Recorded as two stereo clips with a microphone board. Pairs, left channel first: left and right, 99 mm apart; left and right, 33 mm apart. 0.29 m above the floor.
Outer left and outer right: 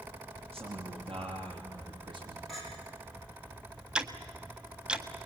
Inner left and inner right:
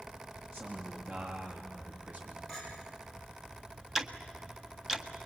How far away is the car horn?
I don't hear a car horn.